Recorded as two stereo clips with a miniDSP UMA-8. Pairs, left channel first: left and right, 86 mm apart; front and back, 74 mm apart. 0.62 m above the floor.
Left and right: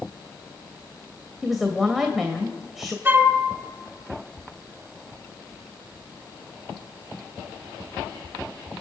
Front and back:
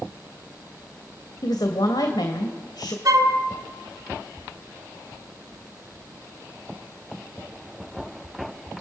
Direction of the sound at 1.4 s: 5° right.